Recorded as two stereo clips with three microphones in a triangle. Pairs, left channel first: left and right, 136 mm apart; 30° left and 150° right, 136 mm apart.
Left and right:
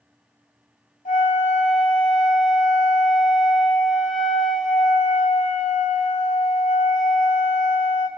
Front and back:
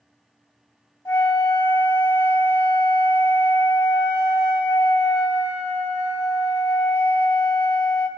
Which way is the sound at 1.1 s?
100° left.